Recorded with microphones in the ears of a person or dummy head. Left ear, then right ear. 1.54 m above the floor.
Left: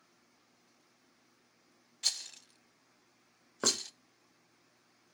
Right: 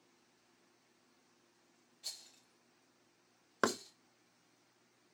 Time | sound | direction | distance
2.0 | a rattle | 50° left (ahead or behind) | 0.5 m
3.6 | knocking | 65° right (ahead or behind) | 0.6 m